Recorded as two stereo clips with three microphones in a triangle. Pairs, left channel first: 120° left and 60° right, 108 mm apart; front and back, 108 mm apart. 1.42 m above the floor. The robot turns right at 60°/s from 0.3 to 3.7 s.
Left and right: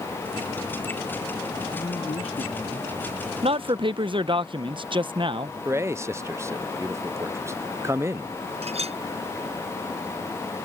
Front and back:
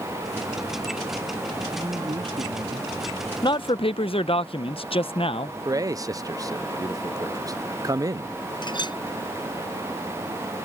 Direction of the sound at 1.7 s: 110° left.